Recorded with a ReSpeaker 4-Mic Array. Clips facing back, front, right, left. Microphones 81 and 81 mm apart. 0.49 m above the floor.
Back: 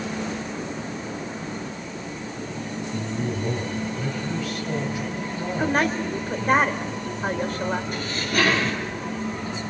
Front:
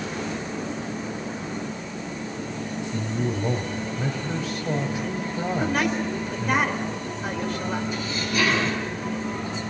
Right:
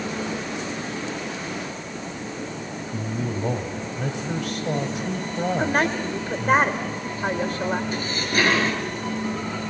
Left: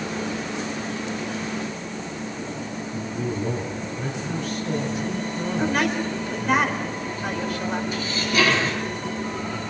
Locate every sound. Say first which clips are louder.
2.9 s a man speaking: front 1 dB, even; 65° right, 2 m
5.6 s a woman speaking: back 3 dB, left 2 dB; 140° right, 2 m
7.9 s dishes clattering: back 1 dB, left 1 dB; 140° right, 6.5 m